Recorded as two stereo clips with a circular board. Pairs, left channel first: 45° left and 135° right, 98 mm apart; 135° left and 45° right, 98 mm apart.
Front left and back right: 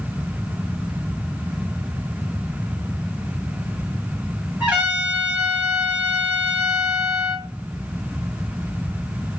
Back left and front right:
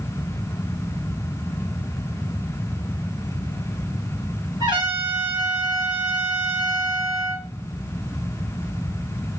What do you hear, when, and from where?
4.6 s a trumpet: 65° right, 2 m